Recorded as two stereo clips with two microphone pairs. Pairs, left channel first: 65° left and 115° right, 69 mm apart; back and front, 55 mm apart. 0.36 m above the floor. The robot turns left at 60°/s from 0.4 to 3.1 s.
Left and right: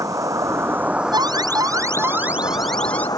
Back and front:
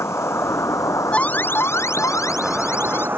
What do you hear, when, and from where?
0.0 s an insect: 150° right; by 3.2 s 45° left
1.1 s an alarm: 110° right; by 3.1 s 130° left